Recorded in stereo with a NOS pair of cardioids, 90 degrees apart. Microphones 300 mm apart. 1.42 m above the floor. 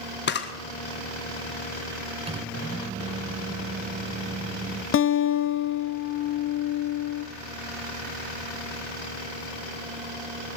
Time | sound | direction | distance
0.3 | a camera shutter | 35° left | 1.5 m
2.3 | a microwave | 20° right | 0.9 m
4.9 | a guitar | 45° left | 0.9 m